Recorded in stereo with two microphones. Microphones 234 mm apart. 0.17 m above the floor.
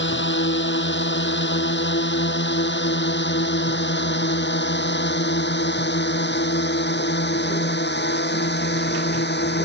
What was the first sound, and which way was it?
A drone, 50° left (ahead or behind).